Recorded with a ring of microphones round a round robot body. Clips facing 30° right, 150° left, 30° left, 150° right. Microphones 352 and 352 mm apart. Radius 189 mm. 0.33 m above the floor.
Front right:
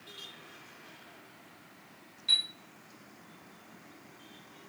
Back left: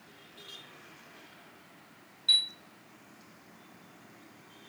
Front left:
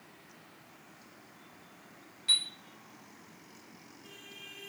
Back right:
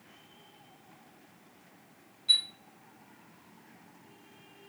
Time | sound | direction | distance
2.3 | a chime | 70° left | 1.1 m